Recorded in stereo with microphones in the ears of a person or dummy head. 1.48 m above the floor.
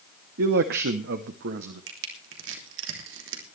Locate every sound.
0.4 s a man speaking: 60° right (ahead or behind), 0.9 m
1.9 s crushing: 75° right (ahead or behind), 3 m